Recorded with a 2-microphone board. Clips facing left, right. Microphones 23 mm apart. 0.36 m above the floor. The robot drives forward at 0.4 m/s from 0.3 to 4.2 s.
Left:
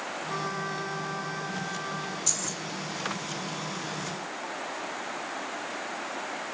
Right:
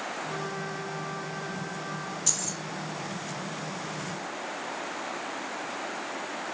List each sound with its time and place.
0.3 s a trumpet: 15° left (ahead or behind), 1.6 m; by 2.2 s 10° left (ahead or behind), 2 m
2.3 s keys jangling: 10° right (ahead or behind), 6 m